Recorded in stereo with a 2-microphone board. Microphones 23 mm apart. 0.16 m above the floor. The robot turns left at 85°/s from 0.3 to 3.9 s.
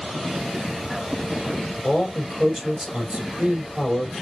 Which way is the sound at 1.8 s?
40° left.